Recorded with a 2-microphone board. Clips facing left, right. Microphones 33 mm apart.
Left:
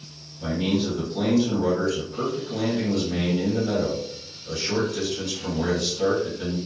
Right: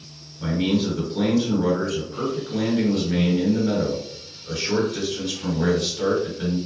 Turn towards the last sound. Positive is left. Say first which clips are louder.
# right 2 dB
turn(degrees=-30)  # may be behind; listen again after turning